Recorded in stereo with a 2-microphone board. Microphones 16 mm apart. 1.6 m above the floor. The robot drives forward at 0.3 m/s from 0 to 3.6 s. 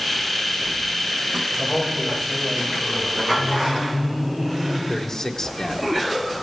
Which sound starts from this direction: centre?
Laughter, at 3.4 s.